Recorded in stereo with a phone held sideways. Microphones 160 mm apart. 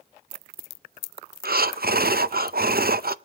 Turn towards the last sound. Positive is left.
turn(degrees=-70)  # may be behind; listen again after turning